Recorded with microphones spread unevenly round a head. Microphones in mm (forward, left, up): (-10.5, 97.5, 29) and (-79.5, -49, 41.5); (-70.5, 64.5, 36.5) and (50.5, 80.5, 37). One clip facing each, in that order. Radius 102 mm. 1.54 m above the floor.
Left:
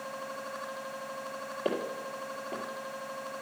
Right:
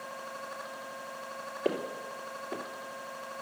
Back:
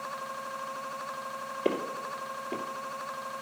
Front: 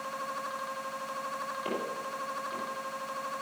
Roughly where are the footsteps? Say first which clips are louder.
Right 1 dB, back 7 dB; behind.